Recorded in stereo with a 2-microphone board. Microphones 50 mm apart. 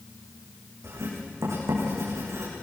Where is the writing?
70° right (ahead or behind), 8.5 m.